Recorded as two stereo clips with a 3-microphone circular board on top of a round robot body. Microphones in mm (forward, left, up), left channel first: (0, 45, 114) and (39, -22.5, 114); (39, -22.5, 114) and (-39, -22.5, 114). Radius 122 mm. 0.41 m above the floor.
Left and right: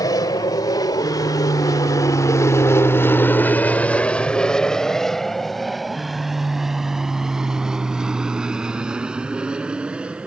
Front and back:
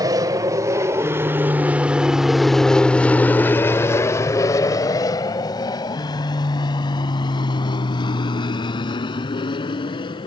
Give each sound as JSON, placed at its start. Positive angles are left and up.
{"t": 0.0, "sound": "an aircraft", "azimuth_deg": 150}